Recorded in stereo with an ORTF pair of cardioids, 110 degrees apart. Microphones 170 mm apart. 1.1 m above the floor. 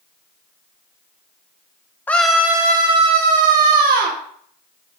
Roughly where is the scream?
Ahead.